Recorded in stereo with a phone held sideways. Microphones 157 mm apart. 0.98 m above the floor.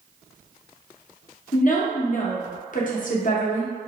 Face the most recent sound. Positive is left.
turn(degrees=55)  # may be behind; listen again after turning